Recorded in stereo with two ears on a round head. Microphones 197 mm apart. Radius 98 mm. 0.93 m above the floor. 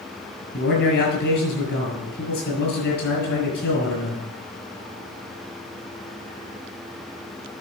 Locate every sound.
0.5 s a man speaking: 50° left (ahead or behind), 7 m